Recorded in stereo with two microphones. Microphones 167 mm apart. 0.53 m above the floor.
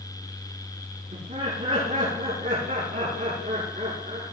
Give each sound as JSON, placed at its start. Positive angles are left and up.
{"t": 1.1, "sound": "laughter", "side_deg": -50, "distance_m": 7.5}